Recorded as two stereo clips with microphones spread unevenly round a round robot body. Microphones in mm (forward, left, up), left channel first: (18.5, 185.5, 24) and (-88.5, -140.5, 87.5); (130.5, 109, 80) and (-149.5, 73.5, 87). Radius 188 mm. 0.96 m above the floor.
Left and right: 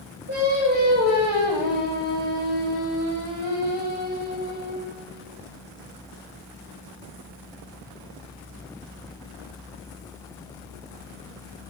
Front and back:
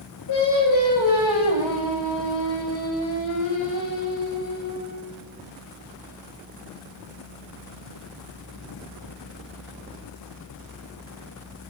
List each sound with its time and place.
0.3 s singing: 45° right, 9 m